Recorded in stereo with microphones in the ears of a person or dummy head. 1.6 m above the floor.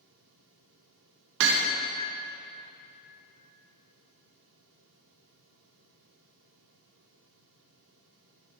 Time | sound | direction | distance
1.4 | hammering | 65° right (ahead or behind) | 1.4 m